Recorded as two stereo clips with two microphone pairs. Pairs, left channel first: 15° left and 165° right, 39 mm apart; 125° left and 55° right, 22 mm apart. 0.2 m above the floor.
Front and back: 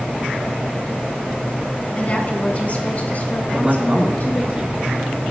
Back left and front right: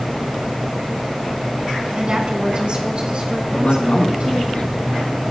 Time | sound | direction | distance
1.9 | a woman speaking | 20° right | 2.0 m
3.5 | a man speaking | 130° left | 4 m